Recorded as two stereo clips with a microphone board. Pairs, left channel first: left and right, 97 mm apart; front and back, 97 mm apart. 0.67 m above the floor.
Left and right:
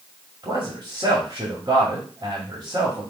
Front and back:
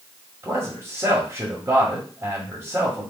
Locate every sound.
0.4 s a man speaking: 130° right, 1.6 m